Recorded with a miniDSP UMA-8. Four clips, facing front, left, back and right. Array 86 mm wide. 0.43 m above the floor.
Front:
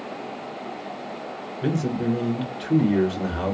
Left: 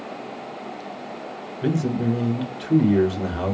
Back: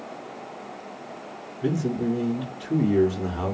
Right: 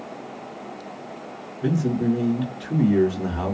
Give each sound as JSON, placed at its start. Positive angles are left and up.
{"t": 1.6, "sound": "a man speaking", "azimuth_deg": 45, "distance_m": 1.2}